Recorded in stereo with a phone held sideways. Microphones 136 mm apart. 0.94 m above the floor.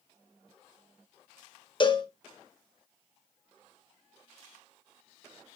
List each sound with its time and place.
1.8 s a cowbell: 35° left (ahead or behind), 1.0 m